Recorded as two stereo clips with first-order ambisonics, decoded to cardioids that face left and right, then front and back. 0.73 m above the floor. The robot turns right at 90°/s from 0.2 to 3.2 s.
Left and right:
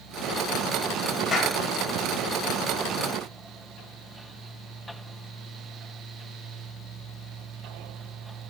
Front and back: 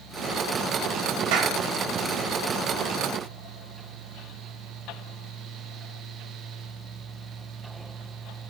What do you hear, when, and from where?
1.3 s a clap: 160° left, 3 m; by 1.6 s straight behind, 3 m